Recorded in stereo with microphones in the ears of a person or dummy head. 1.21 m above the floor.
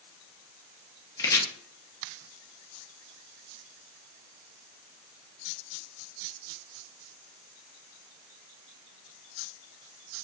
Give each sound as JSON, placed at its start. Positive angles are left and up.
{"t": 1.2, "sound": "chopping", "side_deg": 15, "distance_m": 0.8}